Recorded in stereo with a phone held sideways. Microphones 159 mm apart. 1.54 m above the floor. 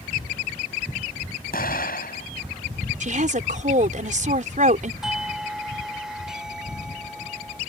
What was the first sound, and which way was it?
An explosion, 80° left.